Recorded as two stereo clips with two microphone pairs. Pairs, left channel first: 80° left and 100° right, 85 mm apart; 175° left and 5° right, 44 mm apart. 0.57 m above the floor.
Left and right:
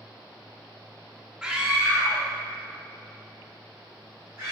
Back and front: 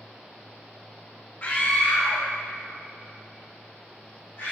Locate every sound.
1.4 s a scream: 175° right, 0.8 m; by 4.5 s 160° right, 2.5 m